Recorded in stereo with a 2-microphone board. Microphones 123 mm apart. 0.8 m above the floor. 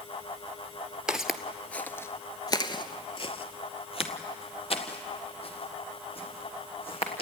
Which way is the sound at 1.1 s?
5° right (ahead or behind).